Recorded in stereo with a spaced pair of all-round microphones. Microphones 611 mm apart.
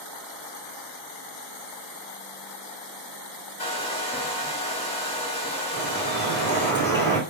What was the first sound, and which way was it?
A hair dryer, 10° left (ahead or behind).